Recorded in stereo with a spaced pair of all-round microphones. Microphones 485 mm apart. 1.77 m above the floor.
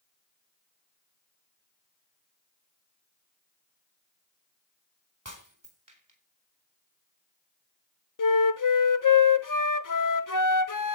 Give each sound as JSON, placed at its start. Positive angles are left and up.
{"t": 5.2, "sound": "breaking glass", "side_deg": -40, "distance_m": 4.0}
{"t": 8.2, "sound": "a flute", "side_deg": 40, "distance_m": 0.7}